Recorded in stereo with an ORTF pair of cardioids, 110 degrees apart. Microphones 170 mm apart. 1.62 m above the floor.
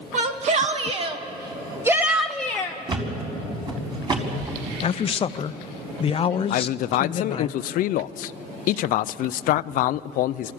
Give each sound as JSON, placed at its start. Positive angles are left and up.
{"t": 0.1, "sound": "a shout", "azimuth_deg": -45, "distance_m": 1.7}
{"t": 2.9, "sound": "a thud", "azimuth_deg": -30, "distance_m": 4.5}
{"t": 4.8, "sound": "a man speaking", "azimuth_deg": 35, "distance_m": 0.7}
{"t": 6.5, "sound": "a man speaking", "azimuth_deg": 65, "distance_m": 0.5}